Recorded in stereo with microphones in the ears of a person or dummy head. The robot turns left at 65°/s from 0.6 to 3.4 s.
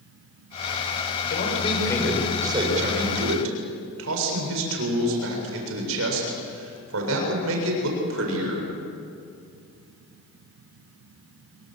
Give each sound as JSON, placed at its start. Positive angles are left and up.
{"t": 1.3, "sound": "a man speaking", "azimuth_deg": 55, "distance_m": 7.5}